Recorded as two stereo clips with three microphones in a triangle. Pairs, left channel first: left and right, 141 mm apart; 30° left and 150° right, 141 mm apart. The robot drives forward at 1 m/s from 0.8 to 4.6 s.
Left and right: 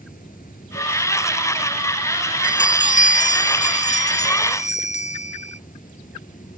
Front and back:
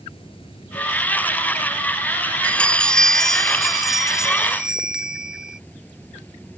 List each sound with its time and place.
0.0 s running water: 80° left; by 6.6 s 110° left
2.4 s a bell: 110° left; by 5.6 s 125° left